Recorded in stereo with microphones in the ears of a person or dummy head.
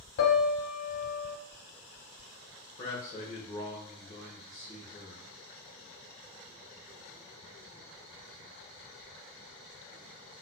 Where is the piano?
65° left (ahead or behind), 0.7 m.